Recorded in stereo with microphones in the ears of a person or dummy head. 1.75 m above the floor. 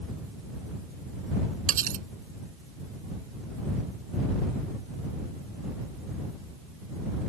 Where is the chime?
No chime in this recording.